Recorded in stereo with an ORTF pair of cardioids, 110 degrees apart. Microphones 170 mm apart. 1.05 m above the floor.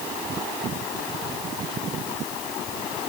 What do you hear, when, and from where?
Only background noise.